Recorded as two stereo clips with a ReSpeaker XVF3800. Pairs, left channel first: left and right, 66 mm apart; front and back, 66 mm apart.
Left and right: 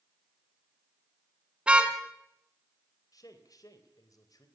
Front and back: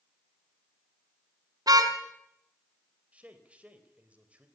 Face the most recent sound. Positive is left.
turn(degrees=110)